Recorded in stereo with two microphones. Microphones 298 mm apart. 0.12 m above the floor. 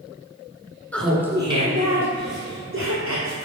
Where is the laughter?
5° left (ahead or behind), 1.2 m; by 3.4 s 55° right (ahead or behind), 2.5 m.